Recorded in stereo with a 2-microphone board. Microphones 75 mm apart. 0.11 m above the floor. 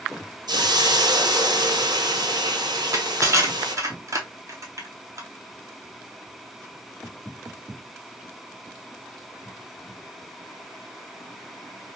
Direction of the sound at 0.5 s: 65° right (ahead or behind).